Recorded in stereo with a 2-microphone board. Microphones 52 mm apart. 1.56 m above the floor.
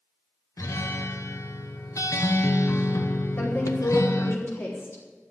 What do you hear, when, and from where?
0.6 s a guitar: 90° left, 1.0 m
3.4 s a woman speaking: 40° left (ahead or behind), 5 m